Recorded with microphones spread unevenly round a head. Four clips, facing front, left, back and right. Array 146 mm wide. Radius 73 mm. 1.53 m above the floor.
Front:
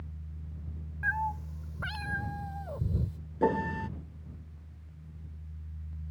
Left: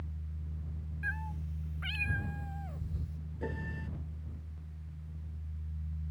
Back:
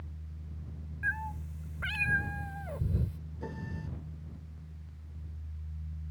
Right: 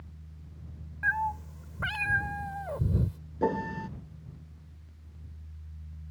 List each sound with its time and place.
1.0 s a cat meowing: 65° right; by 3.2 s 90° right
3.4 s a piano: 40° right